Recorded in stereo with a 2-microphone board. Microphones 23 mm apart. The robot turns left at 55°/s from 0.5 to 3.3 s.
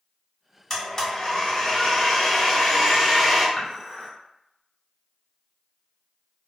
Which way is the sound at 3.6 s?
15° left (ahead or behind).